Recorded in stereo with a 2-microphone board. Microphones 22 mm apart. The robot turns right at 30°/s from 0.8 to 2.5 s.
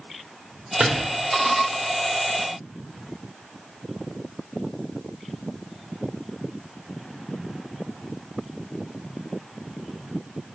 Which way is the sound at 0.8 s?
55° right (ahead or behind).